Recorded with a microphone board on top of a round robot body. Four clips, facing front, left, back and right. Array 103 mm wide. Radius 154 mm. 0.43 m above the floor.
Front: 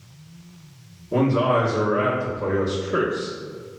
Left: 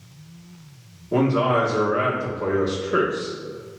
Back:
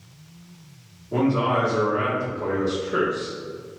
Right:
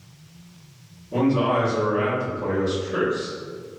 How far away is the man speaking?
About 1.3 m.